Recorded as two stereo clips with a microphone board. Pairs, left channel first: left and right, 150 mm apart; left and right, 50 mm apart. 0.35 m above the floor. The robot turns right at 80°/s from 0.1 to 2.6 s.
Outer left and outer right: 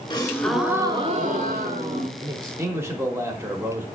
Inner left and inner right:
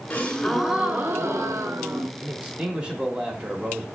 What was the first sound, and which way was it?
A gasp, 145° left.